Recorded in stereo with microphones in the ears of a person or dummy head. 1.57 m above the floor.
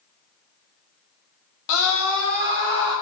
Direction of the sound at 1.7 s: 70° left (ahead or behind).